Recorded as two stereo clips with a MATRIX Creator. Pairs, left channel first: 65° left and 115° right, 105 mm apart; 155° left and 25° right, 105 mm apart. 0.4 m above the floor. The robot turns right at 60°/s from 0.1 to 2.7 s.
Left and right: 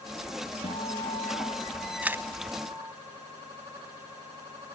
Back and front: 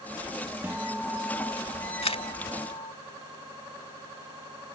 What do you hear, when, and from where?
0.6 s a guitar: 55° left; by 2.9 s 175° left
2.0 s a camera shutter: 170° left; by 2.2 s 175° right